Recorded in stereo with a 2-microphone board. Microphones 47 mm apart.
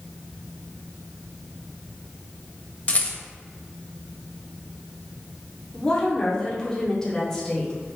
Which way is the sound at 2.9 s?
35° left (ahead or behind).